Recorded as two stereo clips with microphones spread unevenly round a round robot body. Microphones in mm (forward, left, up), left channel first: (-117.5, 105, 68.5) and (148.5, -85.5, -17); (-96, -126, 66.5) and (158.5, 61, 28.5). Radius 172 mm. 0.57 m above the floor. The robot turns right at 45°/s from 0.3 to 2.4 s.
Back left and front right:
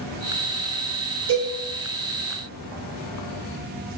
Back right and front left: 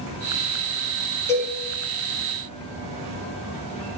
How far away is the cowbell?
About 1.9 m.